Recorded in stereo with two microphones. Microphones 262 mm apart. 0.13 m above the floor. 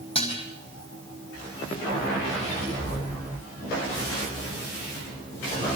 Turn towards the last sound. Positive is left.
turn(degrees=20)  # may be behind; listen again after turning